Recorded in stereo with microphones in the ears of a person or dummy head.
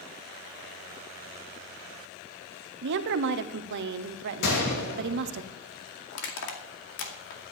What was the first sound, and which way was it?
A woman speaking, 65° right (ahead or behind).